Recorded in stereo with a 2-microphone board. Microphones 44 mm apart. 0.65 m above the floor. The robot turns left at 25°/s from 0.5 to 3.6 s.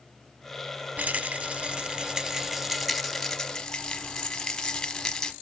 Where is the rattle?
135° right, 0.8 m; by 5.3 s 160° left, 0.8 m.